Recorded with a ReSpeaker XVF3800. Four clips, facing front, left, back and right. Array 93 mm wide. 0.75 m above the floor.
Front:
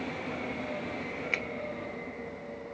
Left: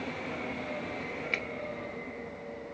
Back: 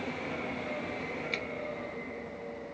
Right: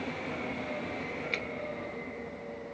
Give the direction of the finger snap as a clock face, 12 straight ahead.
11 o'clock.